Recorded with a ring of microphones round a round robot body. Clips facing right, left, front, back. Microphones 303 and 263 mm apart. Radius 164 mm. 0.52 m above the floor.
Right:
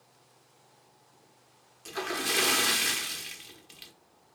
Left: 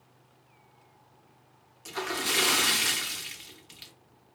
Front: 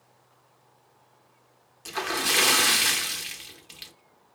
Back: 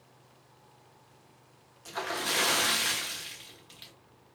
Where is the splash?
5° left, 0.8 m.